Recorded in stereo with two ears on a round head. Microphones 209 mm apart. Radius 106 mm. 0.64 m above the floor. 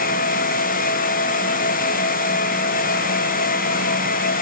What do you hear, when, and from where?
Only background noise.